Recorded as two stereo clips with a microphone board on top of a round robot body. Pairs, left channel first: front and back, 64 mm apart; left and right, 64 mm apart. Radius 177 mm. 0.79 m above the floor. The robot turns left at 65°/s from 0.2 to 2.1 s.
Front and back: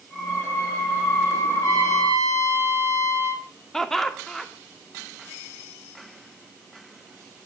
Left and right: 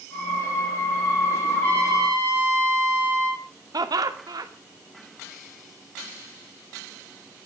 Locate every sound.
1.5 s a trumpet: 25° left, 7.5 m; by 3.4 s 10° right, 7.5 m
3.7 s laughter: 80° right, 2.5 m